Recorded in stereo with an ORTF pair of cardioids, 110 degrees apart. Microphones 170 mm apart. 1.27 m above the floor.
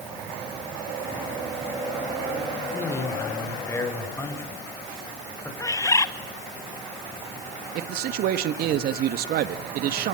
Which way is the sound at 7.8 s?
65° right.